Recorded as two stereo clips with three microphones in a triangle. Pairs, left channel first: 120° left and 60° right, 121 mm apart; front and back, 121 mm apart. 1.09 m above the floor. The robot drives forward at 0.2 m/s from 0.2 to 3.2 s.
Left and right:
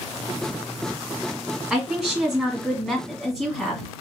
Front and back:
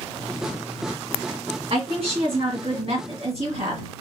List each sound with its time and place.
1.7 s a woman speaking: 150° right, 1.5 m; by 3.8 s 155° right, 1.8 m